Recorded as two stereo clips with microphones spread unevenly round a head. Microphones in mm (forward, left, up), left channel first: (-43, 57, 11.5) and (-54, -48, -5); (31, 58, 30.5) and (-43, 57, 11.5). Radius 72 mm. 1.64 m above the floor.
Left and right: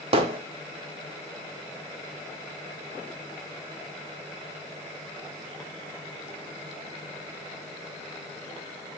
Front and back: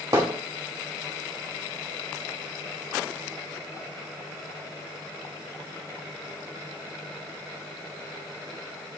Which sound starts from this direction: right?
Hammering, at 0.1 s.